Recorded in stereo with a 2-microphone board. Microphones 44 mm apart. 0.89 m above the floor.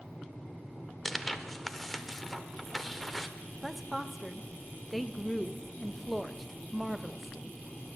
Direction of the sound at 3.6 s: Centre (ahead or behind).